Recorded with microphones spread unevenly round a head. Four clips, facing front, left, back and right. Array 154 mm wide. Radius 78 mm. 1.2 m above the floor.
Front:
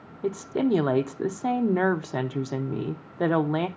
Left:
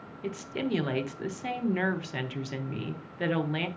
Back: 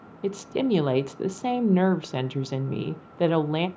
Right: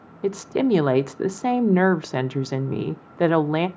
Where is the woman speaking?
90° right, 0.7 m.